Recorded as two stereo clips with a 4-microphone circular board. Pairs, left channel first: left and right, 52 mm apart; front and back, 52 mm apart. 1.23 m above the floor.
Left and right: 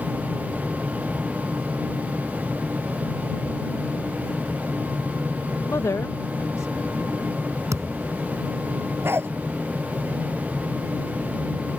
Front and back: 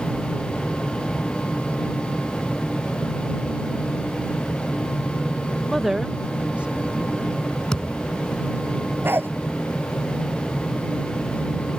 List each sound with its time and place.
5.7 s a woman speaking: 85° left; by 7.3 s 120° left
7.7 s a thud: 75° right
9.0 s a dog barking: 130° right